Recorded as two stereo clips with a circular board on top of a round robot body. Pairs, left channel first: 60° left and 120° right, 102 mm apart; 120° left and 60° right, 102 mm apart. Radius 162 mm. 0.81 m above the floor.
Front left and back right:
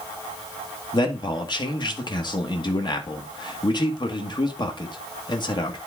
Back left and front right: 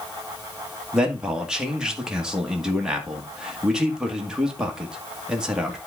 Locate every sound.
0.9 s a man speaking: 20° left, 1.8 m